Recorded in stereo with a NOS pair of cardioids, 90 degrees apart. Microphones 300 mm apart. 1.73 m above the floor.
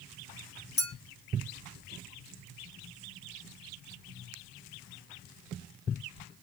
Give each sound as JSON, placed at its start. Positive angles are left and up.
{"t": 0.8, "sound": "a clink", "azimuth_deg": 35, "distance_m": 2.5}